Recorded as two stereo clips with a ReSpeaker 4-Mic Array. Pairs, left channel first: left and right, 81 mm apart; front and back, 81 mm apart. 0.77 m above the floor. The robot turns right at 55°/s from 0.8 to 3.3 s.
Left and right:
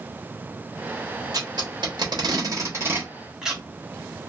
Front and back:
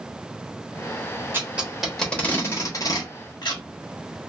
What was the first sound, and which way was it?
Tape being pulled, 120° right.